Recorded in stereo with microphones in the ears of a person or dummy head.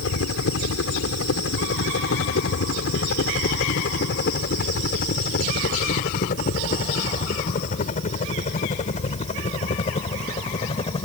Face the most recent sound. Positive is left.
turn(degrees=35)  # may be behind; listen again after turning